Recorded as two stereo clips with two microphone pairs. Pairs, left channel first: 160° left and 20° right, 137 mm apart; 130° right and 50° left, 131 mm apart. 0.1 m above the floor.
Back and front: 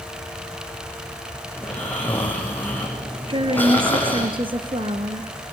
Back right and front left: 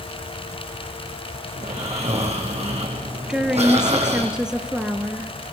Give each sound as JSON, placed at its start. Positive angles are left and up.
{"t": 1.6, "sound": "snoring", "azimuth_deg": 85, "distance_m": 6.5}
{"t": 3.3, "sound": "a woman speaking", "azimuth_deg": -30, "distance_m": 2.0}